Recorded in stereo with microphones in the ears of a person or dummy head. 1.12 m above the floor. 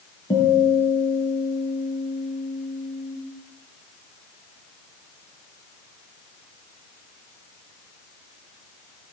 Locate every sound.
0.3 s a guitar: 25° left (ahead or behind), 5.5 m